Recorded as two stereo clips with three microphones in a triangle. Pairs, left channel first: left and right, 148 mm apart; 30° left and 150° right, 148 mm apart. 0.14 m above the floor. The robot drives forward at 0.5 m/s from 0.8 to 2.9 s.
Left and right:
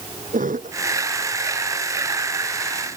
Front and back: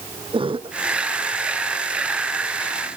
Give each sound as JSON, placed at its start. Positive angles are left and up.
{"t": 0.3, "sound": "a cough", "azimuth_deg": -100}